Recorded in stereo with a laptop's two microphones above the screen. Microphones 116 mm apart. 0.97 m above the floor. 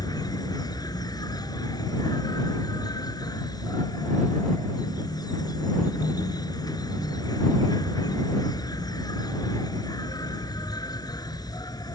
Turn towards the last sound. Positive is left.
turn(degrees=30)  # may be behind; listen again after turning